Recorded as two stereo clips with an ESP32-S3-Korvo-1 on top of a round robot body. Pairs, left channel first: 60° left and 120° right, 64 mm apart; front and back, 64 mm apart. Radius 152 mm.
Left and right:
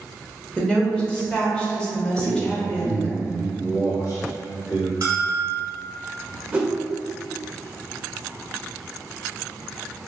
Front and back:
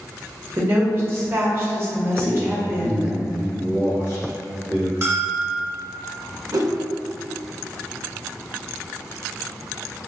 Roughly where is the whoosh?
Behind.